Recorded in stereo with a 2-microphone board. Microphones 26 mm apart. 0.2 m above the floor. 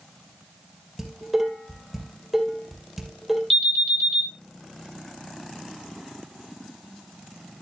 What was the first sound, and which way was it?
Dishes clattering, 5° right (ahead or behind).